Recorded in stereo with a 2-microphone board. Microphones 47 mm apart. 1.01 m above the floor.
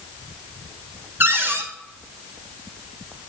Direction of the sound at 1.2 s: 50° right (ahead or behind).